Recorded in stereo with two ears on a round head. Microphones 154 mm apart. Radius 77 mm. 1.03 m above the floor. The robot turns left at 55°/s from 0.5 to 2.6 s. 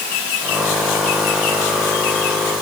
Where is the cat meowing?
No cat meowing in this recording.